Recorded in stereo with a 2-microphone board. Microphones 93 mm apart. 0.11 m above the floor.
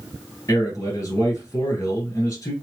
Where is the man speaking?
35° left (ahead or behind), 1.5 m.